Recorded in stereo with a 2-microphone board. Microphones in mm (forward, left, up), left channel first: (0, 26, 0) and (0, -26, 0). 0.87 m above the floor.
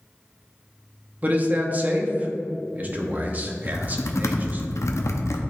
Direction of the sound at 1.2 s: 30° right (ahead or behind).